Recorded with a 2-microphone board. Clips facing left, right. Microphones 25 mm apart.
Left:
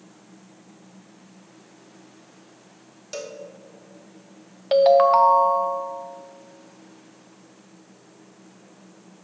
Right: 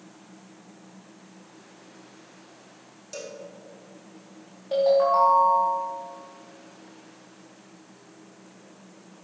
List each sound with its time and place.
3.1 s a cowbell: 35° left (ahead or behind), 0.9 m
4.7 s a ringtone: 75° left (ahead or behind), 0.7 m